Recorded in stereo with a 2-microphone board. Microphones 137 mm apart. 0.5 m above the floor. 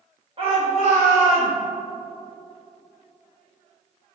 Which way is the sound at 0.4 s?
45° right (ahead or behind).